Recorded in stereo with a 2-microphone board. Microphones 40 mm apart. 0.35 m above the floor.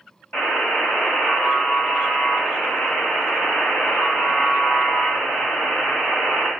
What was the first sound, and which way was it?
A buzzer, 45° left (ahead or behind).